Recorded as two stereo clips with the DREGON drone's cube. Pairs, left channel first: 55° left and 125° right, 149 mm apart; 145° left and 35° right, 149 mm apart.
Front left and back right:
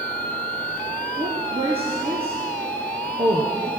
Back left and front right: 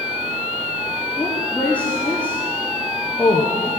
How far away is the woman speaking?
About 1.6 m.